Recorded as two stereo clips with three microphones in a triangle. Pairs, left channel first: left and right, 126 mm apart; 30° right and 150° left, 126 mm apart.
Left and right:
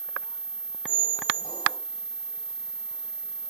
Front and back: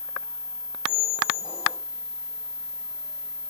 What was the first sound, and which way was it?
A squeak, 40° left.